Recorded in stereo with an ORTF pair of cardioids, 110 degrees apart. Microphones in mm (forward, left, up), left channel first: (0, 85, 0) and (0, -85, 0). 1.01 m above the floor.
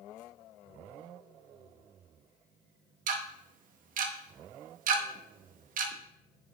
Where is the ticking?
55° right, 0.8 m.